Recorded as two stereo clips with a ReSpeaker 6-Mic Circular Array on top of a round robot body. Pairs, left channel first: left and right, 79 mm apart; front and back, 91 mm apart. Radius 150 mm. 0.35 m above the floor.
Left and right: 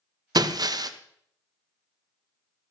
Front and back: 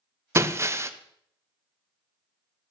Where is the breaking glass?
120° right, 1.0 m.